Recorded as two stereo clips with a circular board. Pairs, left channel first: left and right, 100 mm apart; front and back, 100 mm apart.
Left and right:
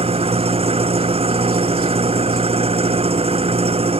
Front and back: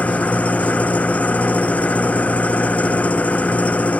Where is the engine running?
75° right.